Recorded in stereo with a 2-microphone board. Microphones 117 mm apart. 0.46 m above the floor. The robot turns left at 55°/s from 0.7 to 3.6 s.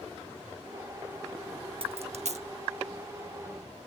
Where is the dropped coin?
50° right (ahead or behind); by 2.5 s 70° right (ahead or behind).